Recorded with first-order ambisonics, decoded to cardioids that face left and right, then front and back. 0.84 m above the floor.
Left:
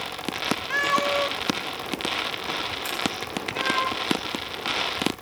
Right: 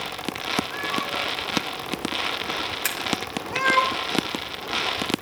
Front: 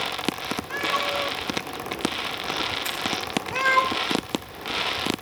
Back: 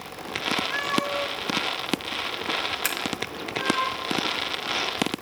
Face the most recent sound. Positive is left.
turn(degrees=-140)